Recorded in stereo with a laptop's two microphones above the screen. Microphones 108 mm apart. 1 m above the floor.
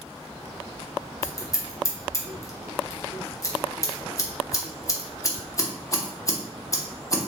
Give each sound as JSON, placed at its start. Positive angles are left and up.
{"t": 1.2, "sound": "scissors", "side_deg": 30, "distance_m": 0.8}